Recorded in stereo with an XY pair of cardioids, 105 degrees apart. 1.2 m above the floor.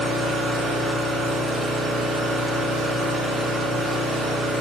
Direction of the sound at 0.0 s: 65° right.